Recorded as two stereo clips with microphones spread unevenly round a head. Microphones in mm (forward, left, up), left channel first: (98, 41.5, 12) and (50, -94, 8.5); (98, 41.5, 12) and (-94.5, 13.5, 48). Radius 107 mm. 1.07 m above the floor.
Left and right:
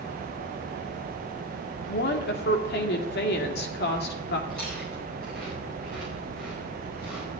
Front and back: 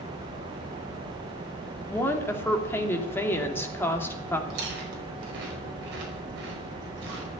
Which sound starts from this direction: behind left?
Chewing, at 4.5 s.